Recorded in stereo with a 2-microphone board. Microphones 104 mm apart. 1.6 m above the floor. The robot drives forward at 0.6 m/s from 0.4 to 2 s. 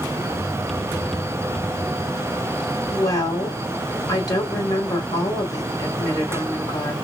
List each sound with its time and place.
2.9 s a woman speaking: 35° left (ahead or behind), 1.6 m